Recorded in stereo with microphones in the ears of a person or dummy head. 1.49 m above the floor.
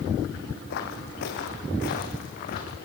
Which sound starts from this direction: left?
Footsteps, at 0.7 s.